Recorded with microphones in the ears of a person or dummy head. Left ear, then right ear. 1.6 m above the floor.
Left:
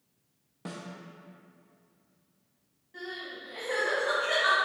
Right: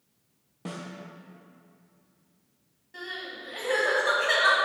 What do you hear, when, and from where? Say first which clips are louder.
0.7 s a snare drum: right 3 dB; 5° left (ahead or behind), 0.6 m
2.9 s crying: right 3 dB; 25° right (ahead or behind), 1.9 m